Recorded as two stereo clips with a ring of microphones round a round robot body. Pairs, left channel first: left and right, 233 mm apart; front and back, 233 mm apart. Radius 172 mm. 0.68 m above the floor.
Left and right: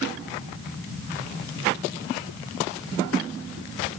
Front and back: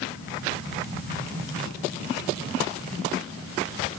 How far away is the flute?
I don't hear a flute.